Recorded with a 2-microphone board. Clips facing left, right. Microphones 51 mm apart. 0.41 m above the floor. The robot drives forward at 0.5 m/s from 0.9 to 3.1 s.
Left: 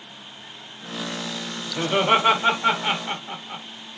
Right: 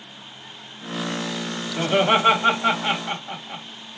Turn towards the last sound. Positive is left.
turn(degrees=10)  # may be behind; listen again after turning